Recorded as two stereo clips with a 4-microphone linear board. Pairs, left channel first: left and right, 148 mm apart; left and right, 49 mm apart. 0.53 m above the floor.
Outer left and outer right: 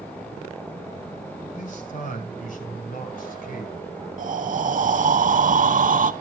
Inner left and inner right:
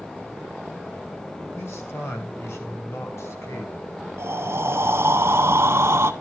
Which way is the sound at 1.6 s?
60° left (ahead or behind).